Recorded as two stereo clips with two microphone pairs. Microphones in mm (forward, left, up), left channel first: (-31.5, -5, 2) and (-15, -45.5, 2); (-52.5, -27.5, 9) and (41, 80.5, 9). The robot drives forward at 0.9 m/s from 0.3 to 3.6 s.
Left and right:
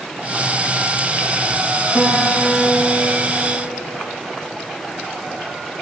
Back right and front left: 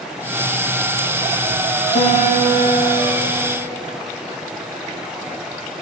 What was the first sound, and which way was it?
A guitar, 125° right.